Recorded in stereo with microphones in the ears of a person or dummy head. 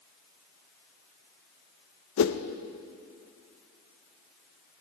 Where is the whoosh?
65° left (ahead or behind), 0.7 m.